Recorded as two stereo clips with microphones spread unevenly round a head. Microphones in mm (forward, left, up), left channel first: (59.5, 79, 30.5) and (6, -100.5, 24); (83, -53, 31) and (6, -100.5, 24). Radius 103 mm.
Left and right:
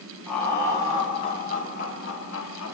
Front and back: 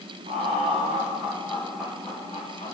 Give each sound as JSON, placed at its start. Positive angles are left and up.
{"t": 0.3, "sound": "laughter", "azimuth_deg": 160, "distance_m": 1.3}